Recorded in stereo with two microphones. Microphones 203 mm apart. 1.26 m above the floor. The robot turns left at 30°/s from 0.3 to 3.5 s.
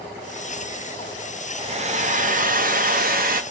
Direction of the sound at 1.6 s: 45° right.